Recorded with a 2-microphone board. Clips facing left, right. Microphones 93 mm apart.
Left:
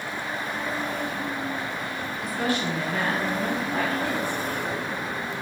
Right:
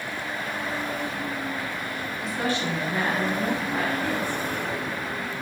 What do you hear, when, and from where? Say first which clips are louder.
2.2 s a woman speaking: left 1 dB; 25° right (ahead or behind), 0.9 m; by 4.4 s 10° left (ahead or behind), 0.8 m